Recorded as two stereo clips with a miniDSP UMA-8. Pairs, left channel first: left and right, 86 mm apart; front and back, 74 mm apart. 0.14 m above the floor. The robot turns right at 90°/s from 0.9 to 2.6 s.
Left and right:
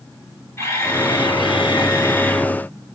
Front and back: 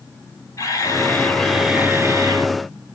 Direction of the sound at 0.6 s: 35° left.